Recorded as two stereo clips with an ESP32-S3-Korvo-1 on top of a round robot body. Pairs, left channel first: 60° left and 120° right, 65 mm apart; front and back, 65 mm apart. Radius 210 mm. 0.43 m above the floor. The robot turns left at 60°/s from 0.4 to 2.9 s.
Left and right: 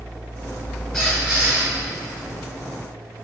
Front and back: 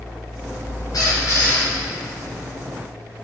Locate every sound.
0.9 s a squeak: 25° right, 2 m; by 1.7 s 70° right, 2 m